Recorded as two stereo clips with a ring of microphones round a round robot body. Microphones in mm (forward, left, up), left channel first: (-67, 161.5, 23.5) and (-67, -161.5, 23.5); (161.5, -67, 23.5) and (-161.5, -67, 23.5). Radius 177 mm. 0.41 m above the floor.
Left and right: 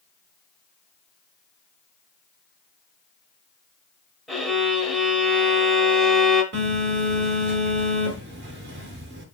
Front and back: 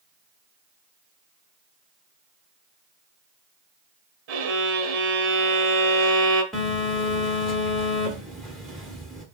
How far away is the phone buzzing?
About 1.1 m.